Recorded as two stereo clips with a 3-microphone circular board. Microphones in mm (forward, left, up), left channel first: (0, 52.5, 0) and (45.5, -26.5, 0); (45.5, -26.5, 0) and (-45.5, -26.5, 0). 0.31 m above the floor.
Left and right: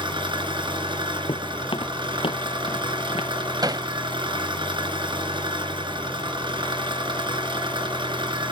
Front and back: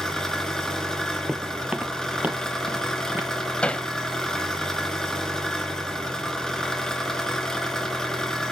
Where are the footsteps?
95° left, 0.9 m; by 3.3 s 110° left, 2 m.